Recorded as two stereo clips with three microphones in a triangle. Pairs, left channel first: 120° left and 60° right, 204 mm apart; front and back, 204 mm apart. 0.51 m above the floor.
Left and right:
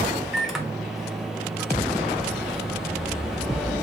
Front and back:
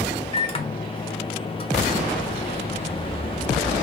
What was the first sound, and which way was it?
A microwave, 25° left.